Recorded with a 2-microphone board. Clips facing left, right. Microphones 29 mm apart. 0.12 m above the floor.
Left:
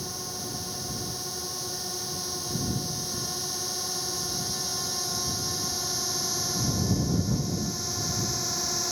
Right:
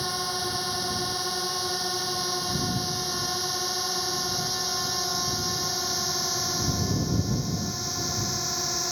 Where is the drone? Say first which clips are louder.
Right 7 dB; 50° right (ahead or behind); by 8.9 s 10° right (ahead or behind).